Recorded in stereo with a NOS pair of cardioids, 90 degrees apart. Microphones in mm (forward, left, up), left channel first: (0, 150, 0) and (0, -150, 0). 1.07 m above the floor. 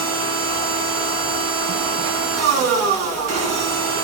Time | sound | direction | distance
0.0 | a machine running | 55° right | 0.9 m